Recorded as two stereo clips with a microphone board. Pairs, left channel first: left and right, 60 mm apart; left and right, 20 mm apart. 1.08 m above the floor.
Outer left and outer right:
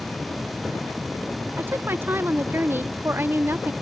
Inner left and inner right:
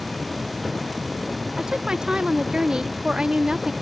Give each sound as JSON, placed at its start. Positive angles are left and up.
{"t": 1.6, "sound": "a woman speaking", "side_deg": -40}